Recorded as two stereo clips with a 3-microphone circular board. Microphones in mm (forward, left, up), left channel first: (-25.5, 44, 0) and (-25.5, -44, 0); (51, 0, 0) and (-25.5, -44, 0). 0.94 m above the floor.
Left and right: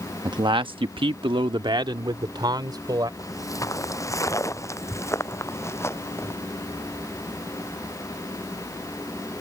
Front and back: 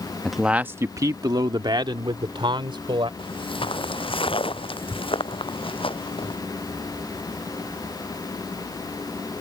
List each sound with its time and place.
0.2 s a man speaking: 55° right; by 3.1 s 130° right
3.2 s footsteps: 40° left; by 6.4 s 30° left